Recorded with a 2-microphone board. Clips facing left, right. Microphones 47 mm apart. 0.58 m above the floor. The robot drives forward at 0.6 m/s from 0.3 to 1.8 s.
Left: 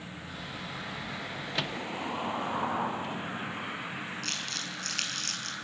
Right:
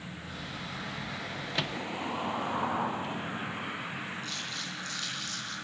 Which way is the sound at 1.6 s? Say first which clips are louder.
Even; centre (ahead or behind).